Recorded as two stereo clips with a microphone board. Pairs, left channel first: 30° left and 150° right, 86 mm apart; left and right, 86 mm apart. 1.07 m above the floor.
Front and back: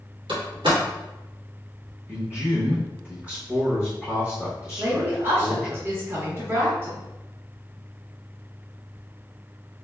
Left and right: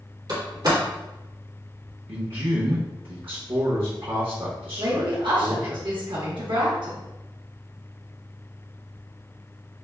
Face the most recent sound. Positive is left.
turn(degrees=-90)